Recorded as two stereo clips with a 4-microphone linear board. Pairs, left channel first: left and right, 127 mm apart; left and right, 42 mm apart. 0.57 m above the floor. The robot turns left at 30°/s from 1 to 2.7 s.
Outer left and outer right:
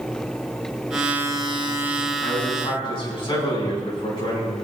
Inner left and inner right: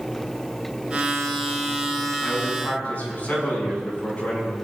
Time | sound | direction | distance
2.2 | a man speaking | 30° left (ahead or behind) | 5.5 m